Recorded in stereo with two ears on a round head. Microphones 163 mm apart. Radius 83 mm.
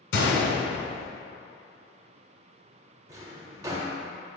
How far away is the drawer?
About 0.5 m.